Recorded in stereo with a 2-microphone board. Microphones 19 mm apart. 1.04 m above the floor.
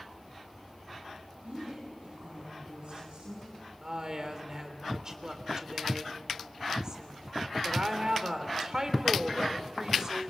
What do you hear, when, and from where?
1.4 s a woman speaking: 85° right, 9 m; by 3.5 s 75° right (ahead or behind), 9 m
3.8 s a woman speaking: 40° right (ahead or behind), 3 m